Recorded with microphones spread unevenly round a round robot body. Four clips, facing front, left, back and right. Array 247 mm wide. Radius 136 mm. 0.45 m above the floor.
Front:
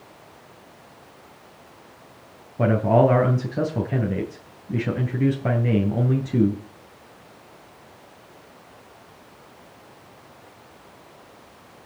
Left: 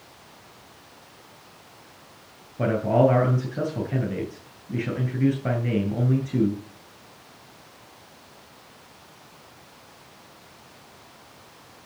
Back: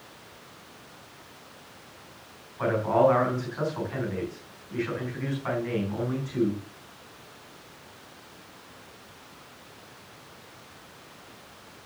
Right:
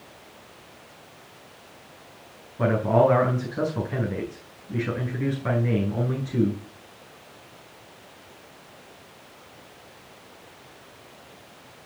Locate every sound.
2.6 s a man speaking: 10° left, 4 m